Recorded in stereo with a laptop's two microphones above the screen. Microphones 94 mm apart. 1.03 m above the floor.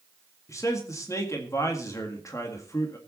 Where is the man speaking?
35° left (ahead or behind), 1.8 m.